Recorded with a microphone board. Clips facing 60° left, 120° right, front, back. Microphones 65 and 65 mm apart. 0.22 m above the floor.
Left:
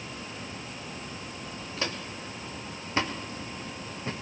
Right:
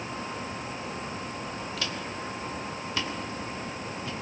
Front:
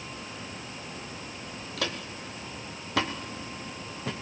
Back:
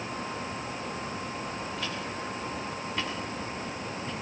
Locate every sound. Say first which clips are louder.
1.8 s footsteps: right 1 dB, back 1 dB; straight ahead, 3 m; by 4.1 s 5° left, 4 m